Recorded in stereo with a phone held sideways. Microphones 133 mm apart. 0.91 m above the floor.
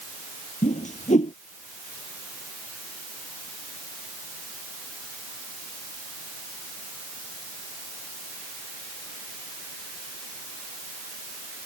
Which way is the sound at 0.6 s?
70° left (ahead or behind).